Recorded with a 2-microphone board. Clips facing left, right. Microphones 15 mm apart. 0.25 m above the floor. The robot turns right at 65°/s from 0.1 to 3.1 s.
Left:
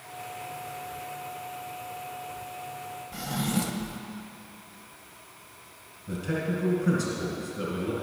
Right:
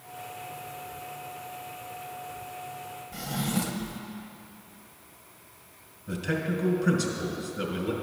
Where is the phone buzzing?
No phone buzzing in this recording.